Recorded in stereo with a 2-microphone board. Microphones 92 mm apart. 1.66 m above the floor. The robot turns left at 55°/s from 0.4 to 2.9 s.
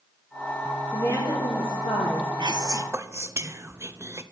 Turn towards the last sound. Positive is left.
turn(degrees=-30)  # may be behind; listen again after turning